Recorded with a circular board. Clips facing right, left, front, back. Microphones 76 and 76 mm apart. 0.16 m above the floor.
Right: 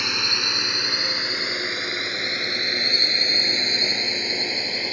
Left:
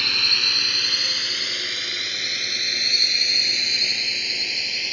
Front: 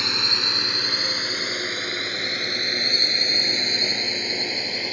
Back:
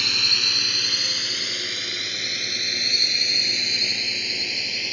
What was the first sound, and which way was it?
A drone, 35° right.